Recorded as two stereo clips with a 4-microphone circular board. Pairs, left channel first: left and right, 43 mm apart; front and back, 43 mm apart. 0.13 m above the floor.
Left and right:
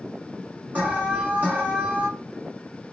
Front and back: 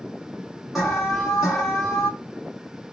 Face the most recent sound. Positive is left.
turn(degrees=-90)